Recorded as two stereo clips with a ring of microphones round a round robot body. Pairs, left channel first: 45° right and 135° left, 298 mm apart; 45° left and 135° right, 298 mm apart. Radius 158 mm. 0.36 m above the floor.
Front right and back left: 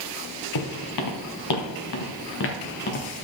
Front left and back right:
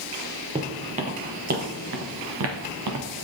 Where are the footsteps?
60° right, 2 m; by 3.2 s 110° right, 1.7 m.